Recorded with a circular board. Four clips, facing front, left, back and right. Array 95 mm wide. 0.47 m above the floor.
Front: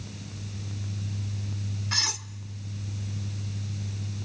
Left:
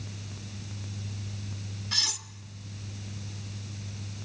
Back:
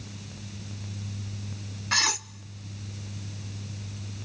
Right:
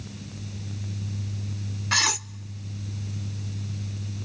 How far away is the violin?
No violin in this recording.